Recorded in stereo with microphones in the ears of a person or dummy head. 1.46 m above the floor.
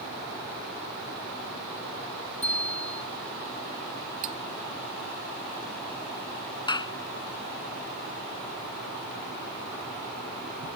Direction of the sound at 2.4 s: 40° left (ahead or behind).